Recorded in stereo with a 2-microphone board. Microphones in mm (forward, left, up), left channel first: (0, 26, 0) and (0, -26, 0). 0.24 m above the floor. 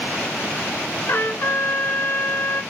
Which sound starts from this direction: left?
A trumpet, at 1.1 s.